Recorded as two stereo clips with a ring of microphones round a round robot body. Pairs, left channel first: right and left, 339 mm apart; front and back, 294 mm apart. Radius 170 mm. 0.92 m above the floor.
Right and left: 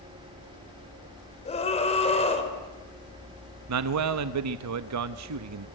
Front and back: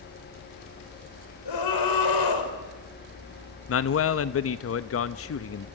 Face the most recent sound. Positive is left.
turn(degrees=45)